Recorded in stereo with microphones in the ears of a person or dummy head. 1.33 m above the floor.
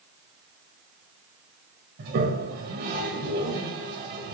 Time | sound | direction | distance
2.0 | a toilet flushing | 50° right (ahead or behind) | 1.6 m